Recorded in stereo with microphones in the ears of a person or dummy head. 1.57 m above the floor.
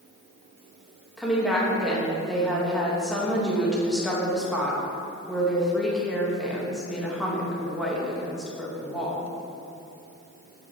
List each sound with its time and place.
1.2 s a woman speaking: centre (ahead or behind), 1.7 m